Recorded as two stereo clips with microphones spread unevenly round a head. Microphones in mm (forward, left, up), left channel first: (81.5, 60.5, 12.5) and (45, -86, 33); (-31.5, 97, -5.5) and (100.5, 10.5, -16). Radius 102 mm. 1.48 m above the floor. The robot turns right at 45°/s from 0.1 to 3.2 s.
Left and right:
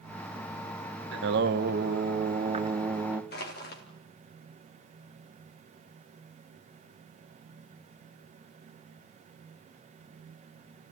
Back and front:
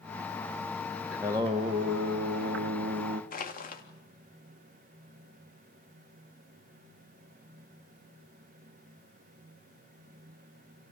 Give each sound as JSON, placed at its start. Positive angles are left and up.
{"t": 1.1, "sound": "singing", "azimuth_deg": -120, "distance_m": 1.2}
{"t": 3.3, "sound": "crushing", "azimuth_deg": 115, "distance_m": 3.0}